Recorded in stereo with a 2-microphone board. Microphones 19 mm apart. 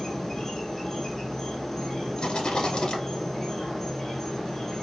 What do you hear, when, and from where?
0.0 s an insect: 25° left (ahead or behind), 1.9 m
2.2 s a rattle: 55° left (ahead or behind), 1.6 m